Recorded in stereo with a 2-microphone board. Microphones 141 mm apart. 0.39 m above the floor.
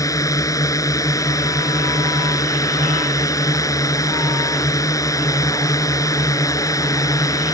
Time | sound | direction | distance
0.0 | a drone | 25° left (ahead or behind) | ?